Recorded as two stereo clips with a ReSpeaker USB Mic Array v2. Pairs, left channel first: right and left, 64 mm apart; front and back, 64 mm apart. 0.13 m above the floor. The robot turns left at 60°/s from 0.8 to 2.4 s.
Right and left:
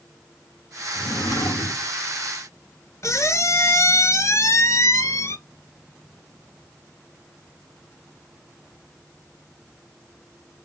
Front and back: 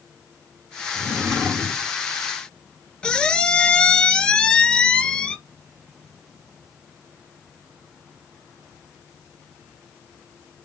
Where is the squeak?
75° right, 0.7 m.